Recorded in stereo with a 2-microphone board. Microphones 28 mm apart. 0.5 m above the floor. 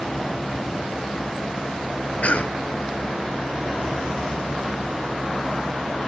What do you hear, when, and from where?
2.2 s a cough: 60° left (ahead or behind), 1.4 m